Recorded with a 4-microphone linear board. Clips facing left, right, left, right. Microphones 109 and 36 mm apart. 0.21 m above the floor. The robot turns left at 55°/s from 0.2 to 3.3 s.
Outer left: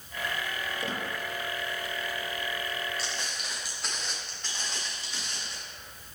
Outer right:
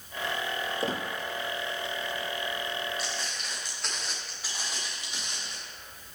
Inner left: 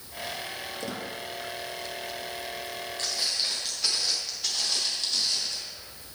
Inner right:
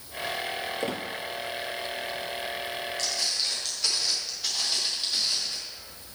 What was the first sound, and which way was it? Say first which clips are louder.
A squeak: outer right 4 dB, inner right 3 dB; 35° right (ahead or behind).